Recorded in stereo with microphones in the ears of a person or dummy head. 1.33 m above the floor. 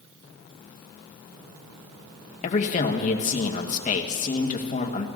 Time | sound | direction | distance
2.4 | a man speaking | 40° left (ahead or behind) | 1.1 m